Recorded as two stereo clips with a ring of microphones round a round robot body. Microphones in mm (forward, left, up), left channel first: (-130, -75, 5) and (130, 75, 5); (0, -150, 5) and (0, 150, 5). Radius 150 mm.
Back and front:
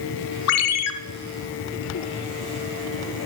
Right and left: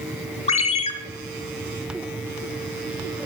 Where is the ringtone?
155° right, 0.7 m.